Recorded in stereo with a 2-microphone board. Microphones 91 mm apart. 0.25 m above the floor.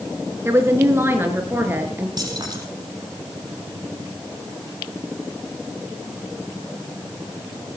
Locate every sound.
0.5 s a woman speaking: 25° right (ahead or behind), 4 m; by 2.1 s 20° right (ahead or behind), 5 m
2.2 s keys jangling: 45° right (ahead or behind), 6 m